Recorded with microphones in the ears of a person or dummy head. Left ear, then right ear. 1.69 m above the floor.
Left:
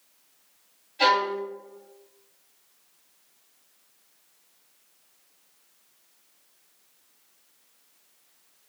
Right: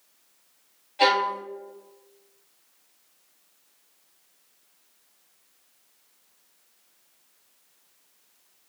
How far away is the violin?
About 1.3 m.